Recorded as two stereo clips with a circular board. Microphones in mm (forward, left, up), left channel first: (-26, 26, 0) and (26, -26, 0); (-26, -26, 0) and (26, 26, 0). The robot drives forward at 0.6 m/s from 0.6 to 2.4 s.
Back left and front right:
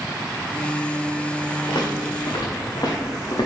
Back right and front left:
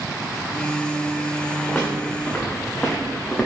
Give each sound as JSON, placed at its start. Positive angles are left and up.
{"t": 1.7, "sound": "footsteps", "azimuth_deg": 150, "distance_m": 2.5}